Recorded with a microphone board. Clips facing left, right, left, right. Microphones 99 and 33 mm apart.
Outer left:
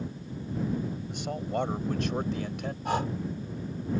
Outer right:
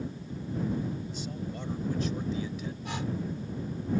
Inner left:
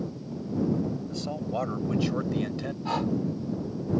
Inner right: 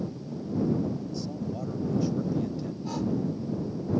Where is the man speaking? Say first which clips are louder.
Outer left 5 dB, inner left 2 dB; 65° left (ahead or behind); by 2.8 s 70° left (ahead or behind).